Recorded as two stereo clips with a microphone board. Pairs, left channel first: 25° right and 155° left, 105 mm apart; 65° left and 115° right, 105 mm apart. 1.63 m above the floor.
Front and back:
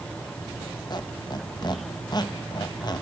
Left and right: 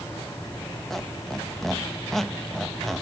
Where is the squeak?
20° right, 1.0 m.